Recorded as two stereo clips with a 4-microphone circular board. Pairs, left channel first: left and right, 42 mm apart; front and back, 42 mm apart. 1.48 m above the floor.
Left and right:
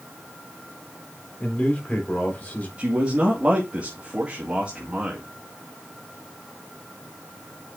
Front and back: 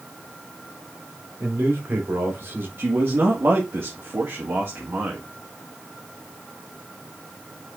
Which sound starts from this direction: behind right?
A man speaking, at 2.8 s.